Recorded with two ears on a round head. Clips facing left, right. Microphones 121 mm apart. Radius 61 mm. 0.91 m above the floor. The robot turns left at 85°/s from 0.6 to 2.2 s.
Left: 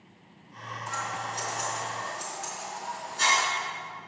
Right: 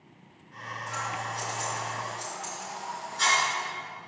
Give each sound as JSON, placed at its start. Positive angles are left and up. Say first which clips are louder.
{"t": 0.9, "sound": "scissors", "louder": "even", "side_deg": 35, "distance_m": 4.0}